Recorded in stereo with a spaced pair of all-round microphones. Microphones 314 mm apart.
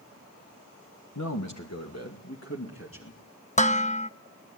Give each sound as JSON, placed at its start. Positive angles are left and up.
{"t": 1.1, "sound": "a man speaking", "side_deg": 70, "distance_m": 1.6}
{"t": 3.6, "sound": "dishes clattering", "side_deg": 25, "distance_m": 1.0}